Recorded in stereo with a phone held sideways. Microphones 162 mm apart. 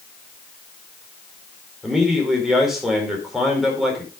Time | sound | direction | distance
1.8 | a man speaking | centre (ahead or behind) | 4.5 m